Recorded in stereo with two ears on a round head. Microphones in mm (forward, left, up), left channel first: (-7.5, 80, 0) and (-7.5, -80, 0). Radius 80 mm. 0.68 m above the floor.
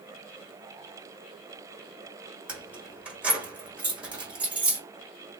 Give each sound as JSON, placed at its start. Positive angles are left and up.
{"t": 2.5, "sound": "keys jangling", "side_deg": -5, "distance_m": 1.5}